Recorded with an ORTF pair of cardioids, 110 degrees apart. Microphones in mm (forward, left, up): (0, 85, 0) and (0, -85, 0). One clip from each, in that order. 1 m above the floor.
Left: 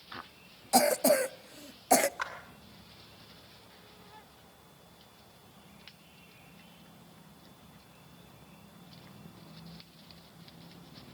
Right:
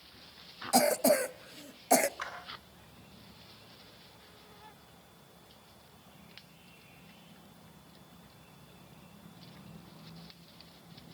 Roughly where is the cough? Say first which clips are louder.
Left 1 dB; ahead.